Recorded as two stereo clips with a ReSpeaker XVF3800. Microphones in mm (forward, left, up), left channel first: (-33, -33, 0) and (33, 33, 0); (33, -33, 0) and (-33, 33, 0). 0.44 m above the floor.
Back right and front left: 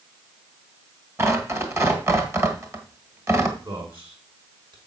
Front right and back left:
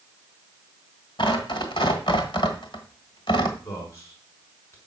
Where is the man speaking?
15° left, 5.5 m.